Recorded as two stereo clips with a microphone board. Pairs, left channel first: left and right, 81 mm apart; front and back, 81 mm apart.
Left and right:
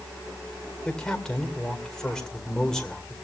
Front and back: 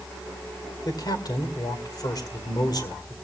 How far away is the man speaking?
About 2 m.